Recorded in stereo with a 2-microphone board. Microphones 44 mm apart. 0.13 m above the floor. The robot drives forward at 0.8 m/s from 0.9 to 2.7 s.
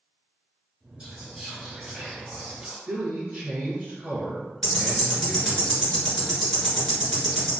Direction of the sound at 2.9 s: 25° right (ahead or behind).